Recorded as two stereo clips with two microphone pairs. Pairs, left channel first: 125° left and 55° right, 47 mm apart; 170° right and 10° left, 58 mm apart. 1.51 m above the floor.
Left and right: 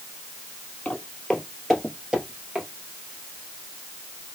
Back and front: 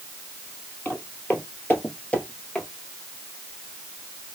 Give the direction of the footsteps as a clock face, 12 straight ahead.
7 o'clock.